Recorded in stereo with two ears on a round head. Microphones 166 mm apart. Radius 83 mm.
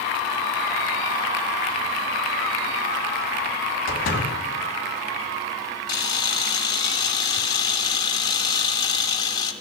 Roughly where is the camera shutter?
Left.